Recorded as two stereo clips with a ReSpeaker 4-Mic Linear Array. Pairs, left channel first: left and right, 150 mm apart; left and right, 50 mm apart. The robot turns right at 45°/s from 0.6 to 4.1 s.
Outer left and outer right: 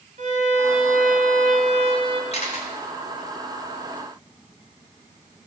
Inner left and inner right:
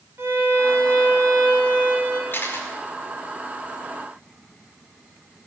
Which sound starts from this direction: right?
A violin, at 0.2 s.